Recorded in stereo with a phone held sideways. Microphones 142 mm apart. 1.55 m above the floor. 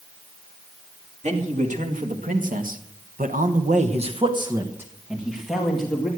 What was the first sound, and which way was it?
A man speaking, 55° right (ahead or behind).